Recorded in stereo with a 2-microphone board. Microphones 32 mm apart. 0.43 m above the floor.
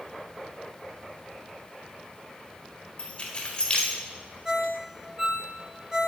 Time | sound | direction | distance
3.0 | keys jangling | 30° left (ahead or behind) | 1.0 m
4.5 | a ringtone | 25° right (ahead or behind) | 1.2 m